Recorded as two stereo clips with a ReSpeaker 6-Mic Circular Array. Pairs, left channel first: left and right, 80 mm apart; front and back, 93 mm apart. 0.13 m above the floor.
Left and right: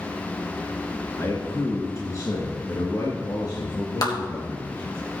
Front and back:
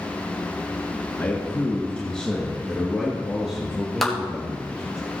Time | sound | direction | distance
1.2 | a man speaking | 55° left | 2.5 m
4.0 | a clap | 90° left | 2.5 m